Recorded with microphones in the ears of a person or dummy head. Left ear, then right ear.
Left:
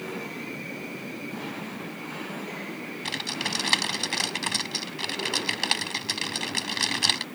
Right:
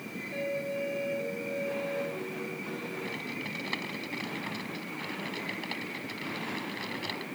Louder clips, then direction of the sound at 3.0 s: Left 7 dB; 55° left (ahead or behind).